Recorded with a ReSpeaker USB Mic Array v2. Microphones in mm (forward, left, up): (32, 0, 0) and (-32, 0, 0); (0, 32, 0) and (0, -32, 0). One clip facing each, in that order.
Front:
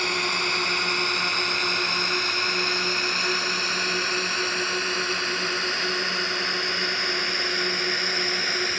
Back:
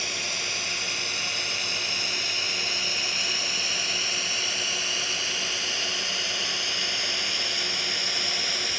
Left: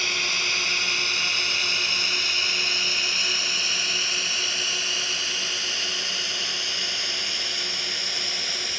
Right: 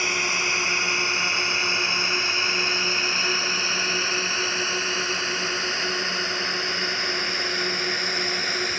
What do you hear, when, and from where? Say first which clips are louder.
0.0 s a drone: front 7 dB, right 3 dB; 25° right; by 8.8 s 45° right